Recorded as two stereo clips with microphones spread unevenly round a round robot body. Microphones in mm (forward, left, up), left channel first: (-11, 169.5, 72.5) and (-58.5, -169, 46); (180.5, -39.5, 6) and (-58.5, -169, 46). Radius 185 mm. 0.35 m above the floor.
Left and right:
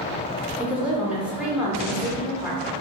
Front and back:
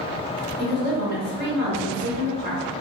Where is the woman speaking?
170° right, 0.8 m.